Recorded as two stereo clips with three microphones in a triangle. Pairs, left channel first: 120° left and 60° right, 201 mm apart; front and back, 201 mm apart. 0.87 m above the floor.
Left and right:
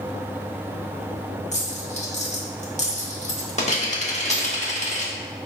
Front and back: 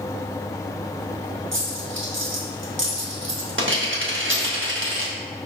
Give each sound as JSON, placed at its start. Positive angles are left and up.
{"t": 1.5, "sound": "a dropped coin", "azimuth_deg": 175, "distance_m": 0.9}